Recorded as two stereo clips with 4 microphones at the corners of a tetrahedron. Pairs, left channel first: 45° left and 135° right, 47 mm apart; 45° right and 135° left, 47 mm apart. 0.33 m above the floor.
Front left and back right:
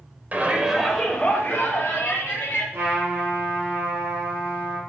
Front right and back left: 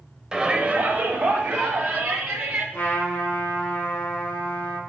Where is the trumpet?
90° right, 4 m.